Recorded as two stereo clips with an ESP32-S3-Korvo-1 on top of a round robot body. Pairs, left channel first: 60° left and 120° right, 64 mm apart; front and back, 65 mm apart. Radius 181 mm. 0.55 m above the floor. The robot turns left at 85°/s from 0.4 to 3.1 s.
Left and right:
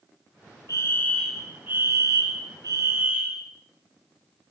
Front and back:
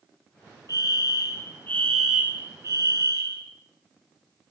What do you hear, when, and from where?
0.7 s a fire alarm: 25° left, 6.5 m; by 3.4 s straight behind, 6.5 m